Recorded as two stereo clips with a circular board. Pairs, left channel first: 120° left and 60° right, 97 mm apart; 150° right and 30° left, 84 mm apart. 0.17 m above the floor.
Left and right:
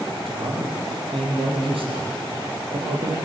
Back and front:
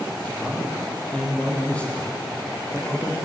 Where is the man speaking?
75° right, 6 m.